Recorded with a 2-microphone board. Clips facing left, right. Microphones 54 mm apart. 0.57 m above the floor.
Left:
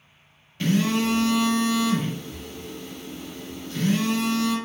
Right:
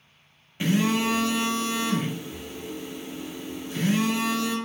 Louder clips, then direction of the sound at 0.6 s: Left 1 dB; 20° right (ahead or behind).